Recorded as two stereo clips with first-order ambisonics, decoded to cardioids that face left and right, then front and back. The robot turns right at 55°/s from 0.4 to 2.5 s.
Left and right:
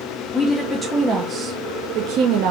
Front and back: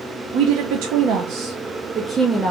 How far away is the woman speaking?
About 0.5 m.